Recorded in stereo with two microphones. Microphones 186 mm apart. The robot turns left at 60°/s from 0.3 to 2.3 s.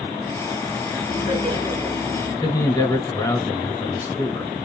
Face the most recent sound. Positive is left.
turn(degrees=20)  # may be behind; listen again after turning